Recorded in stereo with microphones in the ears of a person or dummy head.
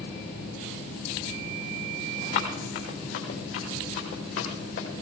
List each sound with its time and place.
2.3 s running footsteps: 70° left (ahead or behind), 4 m; by 4.9 s 75° left (ahead or behind), 6 m